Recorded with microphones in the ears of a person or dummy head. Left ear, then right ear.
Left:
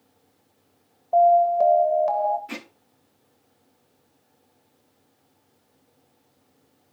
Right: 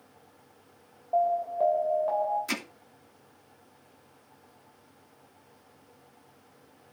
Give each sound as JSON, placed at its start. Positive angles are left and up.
{"t": 1.1, "sound": "an alarm", "side_deg": 80, "distance_m": 3.0}
{"t": 2.5, "sound": "hammering", "side_deg": -70, "distance_m": 2.5}